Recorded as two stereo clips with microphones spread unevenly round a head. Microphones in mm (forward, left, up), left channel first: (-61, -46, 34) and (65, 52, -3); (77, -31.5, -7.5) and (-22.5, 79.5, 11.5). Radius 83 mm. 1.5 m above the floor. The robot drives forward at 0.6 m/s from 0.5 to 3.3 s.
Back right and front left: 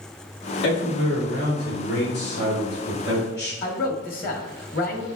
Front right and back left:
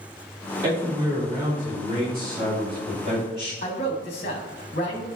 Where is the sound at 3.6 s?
105° right, 1.5 m.